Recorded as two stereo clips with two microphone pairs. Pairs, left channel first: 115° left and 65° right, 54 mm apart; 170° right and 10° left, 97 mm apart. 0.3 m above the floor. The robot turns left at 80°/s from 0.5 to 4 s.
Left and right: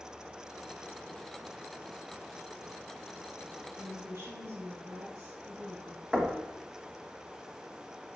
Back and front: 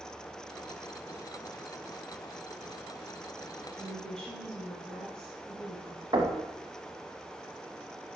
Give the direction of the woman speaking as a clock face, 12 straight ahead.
2 o'clock.